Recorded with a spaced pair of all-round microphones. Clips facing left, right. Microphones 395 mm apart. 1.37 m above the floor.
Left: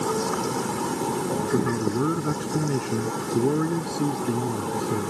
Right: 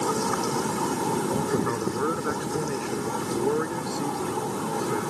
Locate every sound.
1.5 s a man speaking: 45° left (ahead or behind); by 5.1 s 50° left (ahead or behind)